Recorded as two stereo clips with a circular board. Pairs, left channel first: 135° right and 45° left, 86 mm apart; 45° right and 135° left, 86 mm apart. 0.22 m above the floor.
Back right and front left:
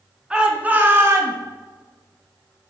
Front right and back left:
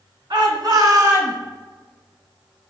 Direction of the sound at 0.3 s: 125° left.